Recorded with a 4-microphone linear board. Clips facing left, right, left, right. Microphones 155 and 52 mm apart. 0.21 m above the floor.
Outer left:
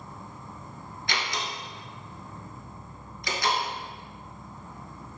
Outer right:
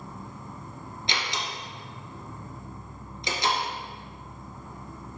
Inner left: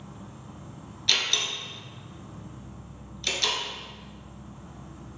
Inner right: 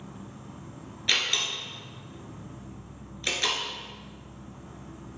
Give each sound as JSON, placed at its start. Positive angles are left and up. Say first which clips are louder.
{"t": 0.0, "sound": "an insect", "louder": "outer right 2 dB, inner right 1 dB", "side_deg": -45, "distance_m": 2.5}
{"t": 1.1, "sound": "a door slam", "louder": "outer left 1 dB, even", "side_deg": -20, "distance_m": 1.9}